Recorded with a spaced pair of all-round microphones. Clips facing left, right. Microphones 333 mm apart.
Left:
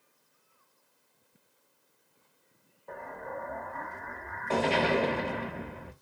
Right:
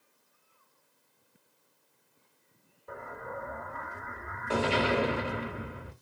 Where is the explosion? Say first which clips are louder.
Left 1 dB; 15° right (ahead or behind), 1.1 m.